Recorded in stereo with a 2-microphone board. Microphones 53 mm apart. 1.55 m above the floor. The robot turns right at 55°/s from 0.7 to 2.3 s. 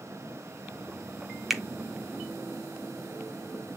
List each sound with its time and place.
1.5 s a finger snap: centre (ahead or behind), 0.5 m